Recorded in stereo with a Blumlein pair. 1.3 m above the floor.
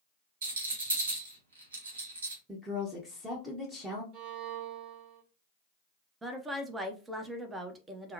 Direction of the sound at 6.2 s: 10° right.